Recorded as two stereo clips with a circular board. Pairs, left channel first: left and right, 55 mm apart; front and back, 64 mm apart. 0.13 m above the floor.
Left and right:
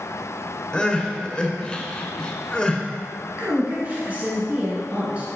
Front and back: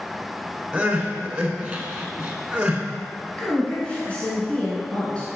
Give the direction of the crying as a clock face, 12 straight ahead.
7 o'clock.